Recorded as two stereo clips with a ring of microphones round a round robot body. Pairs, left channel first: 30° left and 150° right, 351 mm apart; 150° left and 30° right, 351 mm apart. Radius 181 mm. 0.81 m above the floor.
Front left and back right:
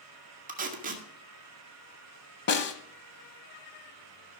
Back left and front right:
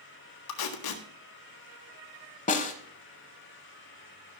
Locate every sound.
0.5 s tape being pulled: 145° left, 1.6 m
2.5 s a snare drum: 85° left, 0.9 m